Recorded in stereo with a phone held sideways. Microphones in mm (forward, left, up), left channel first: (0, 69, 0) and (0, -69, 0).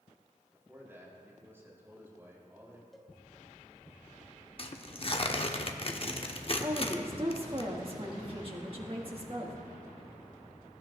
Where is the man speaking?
20° right (ahead or behind), 3.5 m.